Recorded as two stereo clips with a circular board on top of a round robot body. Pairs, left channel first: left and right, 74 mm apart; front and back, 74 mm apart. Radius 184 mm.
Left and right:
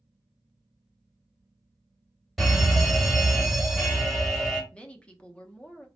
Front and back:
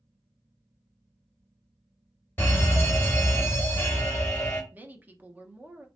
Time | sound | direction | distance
2.4 | a fire alarm | 5° left | 1.8 m
4.7 | a woman speaking | 145° left | 0.9 m